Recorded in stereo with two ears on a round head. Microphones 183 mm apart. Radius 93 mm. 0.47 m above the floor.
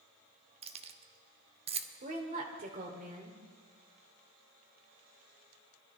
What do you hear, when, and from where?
0.6 s keys jangling: 30° right (ahead or behind), 0.8 m
2.0 s a woman speaking: 45° right (ahead or behind), 1.7 m